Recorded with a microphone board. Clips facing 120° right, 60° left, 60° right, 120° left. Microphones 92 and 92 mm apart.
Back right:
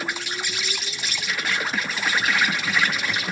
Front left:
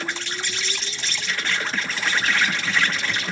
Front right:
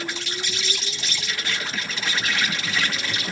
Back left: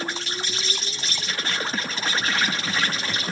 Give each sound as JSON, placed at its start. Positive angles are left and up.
{"t": 0.0, "sound": "an insect", "azimuth_deg": 160, "distance_m": 0.9}